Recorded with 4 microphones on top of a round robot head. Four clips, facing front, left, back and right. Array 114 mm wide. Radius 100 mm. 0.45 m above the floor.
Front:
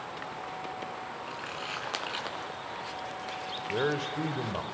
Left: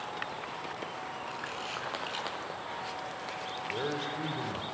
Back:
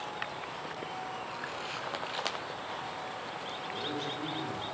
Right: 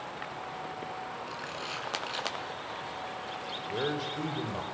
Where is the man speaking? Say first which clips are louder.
Right 2 dB, front 8 dB; 10° right, 2.5 m.